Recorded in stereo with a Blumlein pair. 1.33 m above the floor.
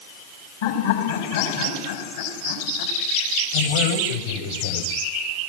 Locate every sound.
0.6 s laughter: 60° left, 5 m
3.5 s a man speaking: 65° left, 8 m